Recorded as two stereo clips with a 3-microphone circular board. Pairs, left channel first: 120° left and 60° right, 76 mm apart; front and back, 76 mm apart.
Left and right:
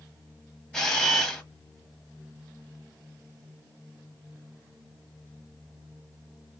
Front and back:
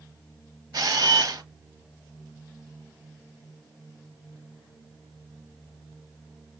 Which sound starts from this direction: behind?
A camera shutter, at 0.7 s.